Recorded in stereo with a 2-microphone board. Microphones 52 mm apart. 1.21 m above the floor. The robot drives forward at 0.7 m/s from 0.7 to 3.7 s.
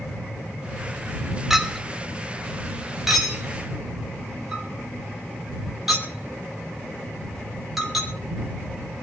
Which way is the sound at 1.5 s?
5° right (ahead or behind).